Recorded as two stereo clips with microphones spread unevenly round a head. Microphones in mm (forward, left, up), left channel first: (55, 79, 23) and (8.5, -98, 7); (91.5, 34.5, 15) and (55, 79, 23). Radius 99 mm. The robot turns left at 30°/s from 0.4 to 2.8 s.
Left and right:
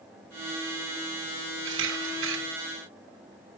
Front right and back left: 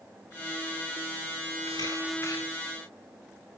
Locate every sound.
1.6 s a camera shutter: 100° right, 3.5 m; by 2.4 s 120° right, 3.5 m